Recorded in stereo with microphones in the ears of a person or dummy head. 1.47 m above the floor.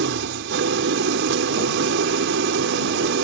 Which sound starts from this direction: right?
An engine running, at 0.0 s.